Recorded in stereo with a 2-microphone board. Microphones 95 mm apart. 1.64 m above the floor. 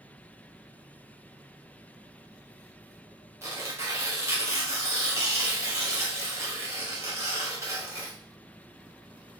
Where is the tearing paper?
25° right (ahead or behind), 1.0 m.